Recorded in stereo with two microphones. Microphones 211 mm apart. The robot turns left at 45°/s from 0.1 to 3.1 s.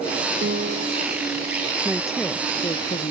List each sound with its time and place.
0.4 s a piano: 60° right (ahead or behind); by 1.1 s 75° right (ahead or behind)
1.9 s a woman speaking: 170° right; by 3.1 s 135° left